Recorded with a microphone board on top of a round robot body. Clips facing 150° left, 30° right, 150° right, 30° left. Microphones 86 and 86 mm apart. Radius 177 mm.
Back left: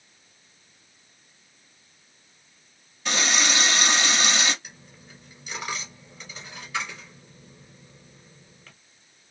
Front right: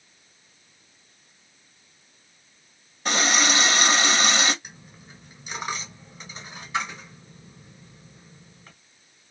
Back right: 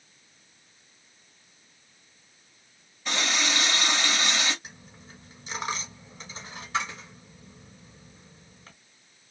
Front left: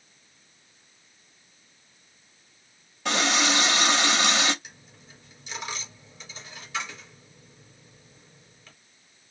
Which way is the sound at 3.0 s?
20° left.